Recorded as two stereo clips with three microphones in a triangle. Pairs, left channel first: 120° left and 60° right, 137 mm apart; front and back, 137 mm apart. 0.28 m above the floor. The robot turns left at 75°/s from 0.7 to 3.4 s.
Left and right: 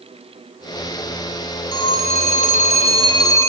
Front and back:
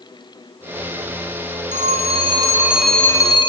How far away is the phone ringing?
About 2.5 m.